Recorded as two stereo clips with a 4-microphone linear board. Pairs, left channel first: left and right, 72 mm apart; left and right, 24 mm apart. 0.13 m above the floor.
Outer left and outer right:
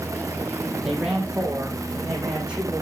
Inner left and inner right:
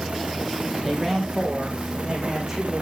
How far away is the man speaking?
About 4 m.